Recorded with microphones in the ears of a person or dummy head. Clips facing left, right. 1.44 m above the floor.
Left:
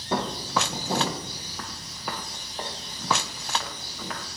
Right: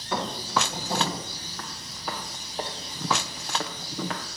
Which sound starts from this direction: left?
Footsteps, at 0.1 s.